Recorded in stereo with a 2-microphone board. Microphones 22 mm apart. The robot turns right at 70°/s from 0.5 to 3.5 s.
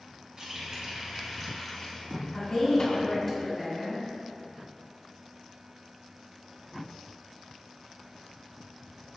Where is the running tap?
80° right, 0.9 m; by 3.2 s 110° left, 0.9 m.